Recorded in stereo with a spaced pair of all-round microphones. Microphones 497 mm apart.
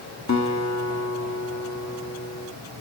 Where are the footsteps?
I don't hear footsteps.